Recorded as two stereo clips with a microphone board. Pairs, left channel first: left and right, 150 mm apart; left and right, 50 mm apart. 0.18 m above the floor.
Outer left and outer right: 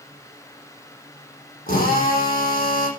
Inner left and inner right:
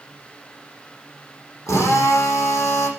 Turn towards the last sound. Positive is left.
turn(degrees=75)  # may be behind; listen again after turning